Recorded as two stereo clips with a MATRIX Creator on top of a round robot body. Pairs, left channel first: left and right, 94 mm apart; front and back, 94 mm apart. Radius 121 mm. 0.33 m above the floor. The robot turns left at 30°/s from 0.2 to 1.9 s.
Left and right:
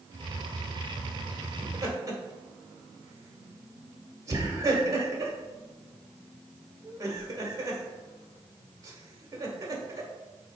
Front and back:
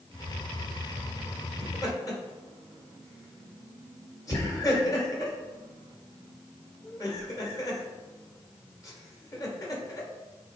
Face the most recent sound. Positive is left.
turn(degrees=-45)